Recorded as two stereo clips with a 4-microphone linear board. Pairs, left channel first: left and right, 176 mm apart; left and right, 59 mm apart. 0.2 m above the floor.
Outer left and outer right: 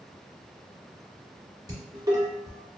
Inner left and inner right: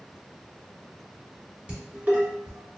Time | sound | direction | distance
1.7 | dishes clattering | 25° right (ahead or behind) | 1.1 m